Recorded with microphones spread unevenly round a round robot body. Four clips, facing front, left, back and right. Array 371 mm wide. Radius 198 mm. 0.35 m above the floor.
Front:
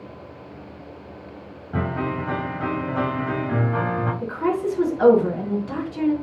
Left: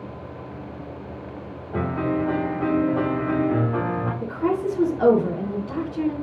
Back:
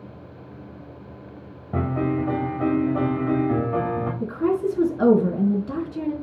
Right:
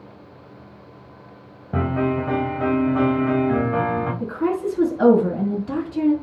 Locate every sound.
1.7 s a piano: 125° right, 4 m
4.2 s a woman speaking: 155° right, 3.5 m